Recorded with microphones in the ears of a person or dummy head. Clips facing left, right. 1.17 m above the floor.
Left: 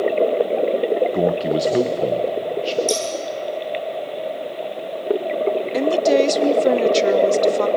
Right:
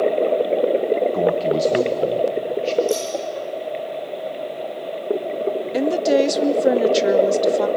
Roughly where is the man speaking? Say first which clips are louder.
Even; centre.